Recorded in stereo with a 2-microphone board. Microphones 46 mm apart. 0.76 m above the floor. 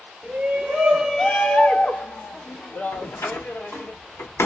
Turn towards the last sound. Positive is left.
turn(degrees=80)